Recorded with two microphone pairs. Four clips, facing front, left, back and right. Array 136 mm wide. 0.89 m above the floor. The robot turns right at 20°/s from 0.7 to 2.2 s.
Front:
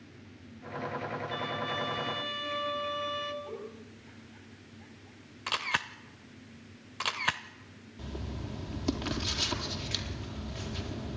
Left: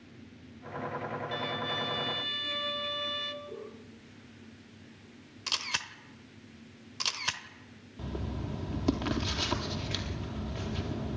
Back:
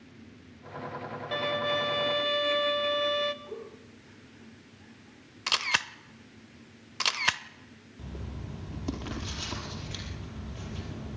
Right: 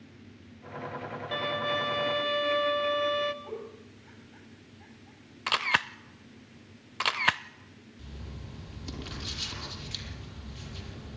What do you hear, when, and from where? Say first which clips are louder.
1.3 s a violin: right 9 dB, back 9 dB; 145° right, 1.5 m; by 3.3 s 125° right, 1.5 m
3.4 s a giggle: right 3 dB, even; 70° right, 8 m
5.5 s a camera shutter: right 10 dB, back 2 dB; 100° right, 0.8 m
8.0 s writing: left 10 dB, front 2 dB; 80° left, 4 m